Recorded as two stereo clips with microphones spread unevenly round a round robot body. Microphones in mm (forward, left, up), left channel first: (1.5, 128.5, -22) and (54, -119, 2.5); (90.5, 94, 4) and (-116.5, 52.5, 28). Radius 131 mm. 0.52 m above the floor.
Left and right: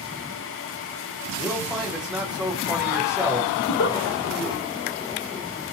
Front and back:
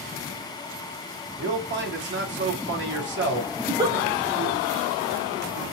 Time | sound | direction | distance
1.4 | a man speaking | 170° right | 0.9 m
3.6 | a giggle | 120° left | 0.8 m